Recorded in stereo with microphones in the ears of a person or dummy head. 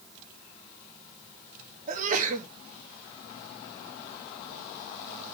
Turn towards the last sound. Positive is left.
turn(degrees=-40)  # may be behind; listen again after turning